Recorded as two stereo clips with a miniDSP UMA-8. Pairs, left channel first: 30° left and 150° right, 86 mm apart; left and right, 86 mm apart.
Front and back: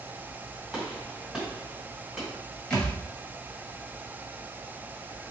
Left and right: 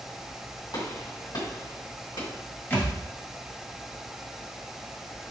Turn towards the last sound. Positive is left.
turn(degrees=90)